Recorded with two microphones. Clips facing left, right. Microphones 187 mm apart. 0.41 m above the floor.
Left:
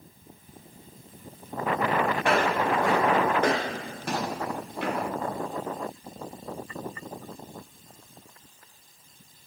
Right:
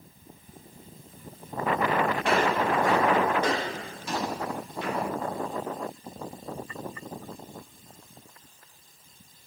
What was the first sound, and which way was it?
Footsteps, 65° left (ahead or behind).